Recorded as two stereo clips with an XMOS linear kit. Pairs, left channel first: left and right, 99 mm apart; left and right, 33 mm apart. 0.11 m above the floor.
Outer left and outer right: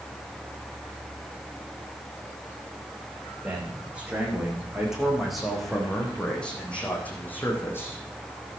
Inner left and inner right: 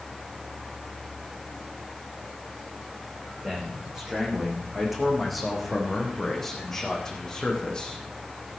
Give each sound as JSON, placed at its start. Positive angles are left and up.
{"t": 3.4, "sound": "a man speaking", "side_deg": -15, "distance_m": 8.0}